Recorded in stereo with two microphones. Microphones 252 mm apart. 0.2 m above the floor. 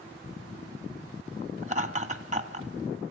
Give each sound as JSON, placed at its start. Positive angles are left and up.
{"t": 1.6, "sound": "laughter", "side_deg": -30, "distance_m": 1.8}